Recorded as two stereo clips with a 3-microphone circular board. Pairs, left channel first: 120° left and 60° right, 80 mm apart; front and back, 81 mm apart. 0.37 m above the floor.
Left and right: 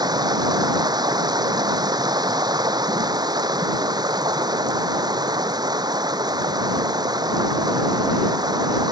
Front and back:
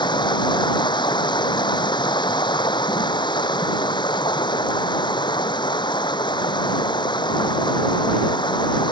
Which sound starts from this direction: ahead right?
Running water, at 0.0 s.